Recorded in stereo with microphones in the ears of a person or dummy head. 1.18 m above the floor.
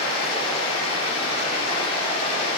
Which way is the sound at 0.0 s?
30° left (ahead or behind).